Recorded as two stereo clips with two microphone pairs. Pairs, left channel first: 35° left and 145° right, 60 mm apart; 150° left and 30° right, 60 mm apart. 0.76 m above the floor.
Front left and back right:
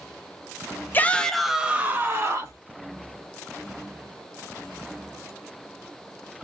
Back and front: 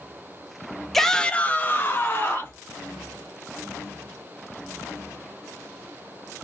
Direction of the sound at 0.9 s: 65° left.